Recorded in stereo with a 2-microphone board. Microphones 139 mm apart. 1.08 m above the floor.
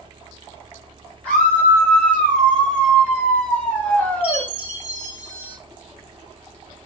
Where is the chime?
10° right (ahead or behind), 4 m.